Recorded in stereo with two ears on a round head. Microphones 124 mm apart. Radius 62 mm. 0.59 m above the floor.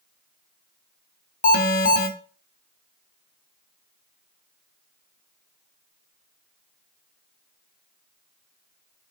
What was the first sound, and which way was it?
An alarm, 65° left (ahead or behind).